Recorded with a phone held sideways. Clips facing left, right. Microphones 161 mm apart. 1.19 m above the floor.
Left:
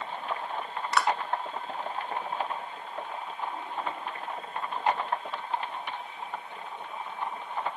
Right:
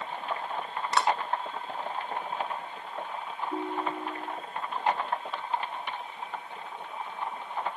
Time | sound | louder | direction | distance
0.9 | a clap | even | 25° right (ahead or behind) | ?
3.5 | a ringtone | right 4 dB | 85° right | ?